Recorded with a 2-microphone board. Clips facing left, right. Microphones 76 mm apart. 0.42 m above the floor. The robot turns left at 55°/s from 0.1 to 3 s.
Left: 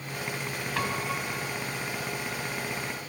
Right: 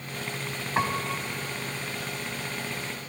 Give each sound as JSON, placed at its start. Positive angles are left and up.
{"t": 0.8, "sound": "a piano", "side_deg": -30, "distance_m": 2.5}